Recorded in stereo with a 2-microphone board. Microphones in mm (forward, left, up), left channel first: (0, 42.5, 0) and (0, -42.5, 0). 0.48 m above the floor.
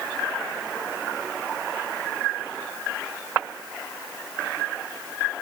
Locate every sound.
Only background noise.